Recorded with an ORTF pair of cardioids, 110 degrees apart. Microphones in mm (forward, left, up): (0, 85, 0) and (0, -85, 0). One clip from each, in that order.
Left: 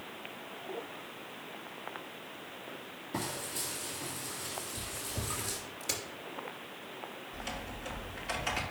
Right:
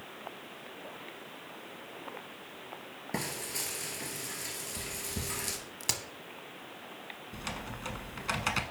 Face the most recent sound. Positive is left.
turn(degrees=-55)